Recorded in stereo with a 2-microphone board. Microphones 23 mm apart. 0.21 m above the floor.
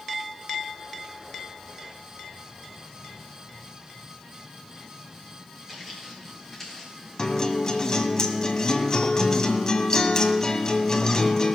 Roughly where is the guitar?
Left.